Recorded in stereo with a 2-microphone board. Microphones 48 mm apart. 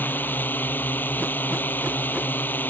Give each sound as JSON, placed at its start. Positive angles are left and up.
{"t": 0.0, "sound": "a drone", "side_deg": 40}